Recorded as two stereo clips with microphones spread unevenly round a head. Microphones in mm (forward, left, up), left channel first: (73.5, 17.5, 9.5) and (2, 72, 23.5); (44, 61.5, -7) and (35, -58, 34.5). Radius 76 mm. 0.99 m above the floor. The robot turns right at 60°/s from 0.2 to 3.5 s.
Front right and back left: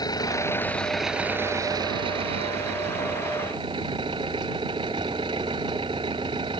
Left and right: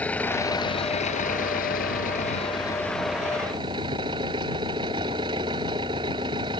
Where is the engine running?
5° left; by 6.6 s 155° right.